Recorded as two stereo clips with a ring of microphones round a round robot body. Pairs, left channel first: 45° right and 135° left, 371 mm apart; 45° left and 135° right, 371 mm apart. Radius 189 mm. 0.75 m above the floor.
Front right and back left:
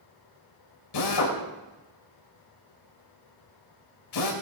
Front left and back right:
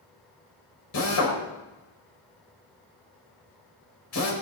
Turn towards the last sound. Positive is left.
turn(degrees=-5)